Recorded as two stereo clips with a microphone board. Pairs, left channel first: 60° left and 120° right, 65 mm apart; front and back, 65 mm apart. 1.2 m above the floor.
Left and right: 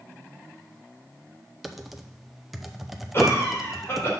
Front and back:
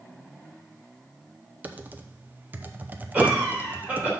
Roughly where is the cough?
Left.